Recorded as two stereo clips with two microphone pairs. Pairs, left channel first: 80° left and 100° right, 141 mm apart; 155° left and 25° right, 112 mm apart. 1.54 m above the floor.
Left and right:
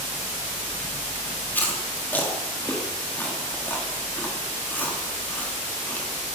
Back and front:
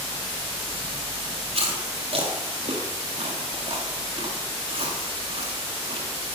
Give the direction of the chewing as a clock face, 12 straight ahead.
12 o'clock.